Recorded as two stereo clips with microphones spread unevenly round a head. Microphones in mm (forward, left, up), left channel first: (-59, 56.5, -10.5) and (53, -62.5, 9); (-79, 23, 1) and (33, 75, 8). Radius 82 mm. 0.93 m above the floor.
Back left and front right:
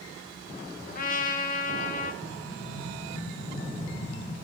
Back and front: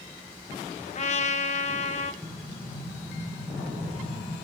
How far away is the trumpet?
About 1.2 m.